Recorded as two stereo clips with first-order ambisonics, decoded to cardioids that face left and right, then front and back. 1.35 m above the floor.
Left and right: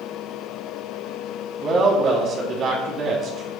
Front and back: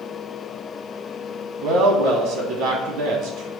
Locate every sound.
1.6 s a woman speaking: 145° right, 3.5 m